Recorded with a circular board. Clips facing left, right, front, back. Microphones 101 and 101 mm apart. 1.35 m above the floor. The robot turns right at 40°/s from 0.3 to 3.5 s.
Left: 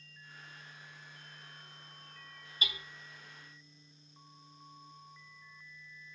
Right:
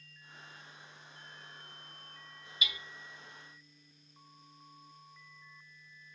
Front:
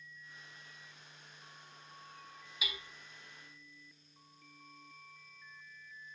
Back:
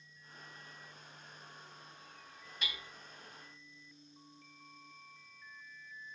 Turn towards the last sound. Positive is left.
turn(degrees=115)